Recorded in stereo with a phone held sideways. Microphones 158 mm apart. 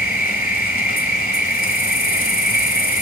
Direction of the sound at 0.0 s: 70° left (ahead or behind).